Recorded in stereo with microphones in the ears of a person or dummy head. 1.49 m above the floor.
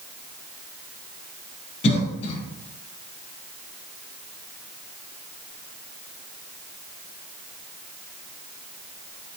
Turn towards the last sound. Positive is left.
turn(degrees=35)  # may be behind; listen again after turning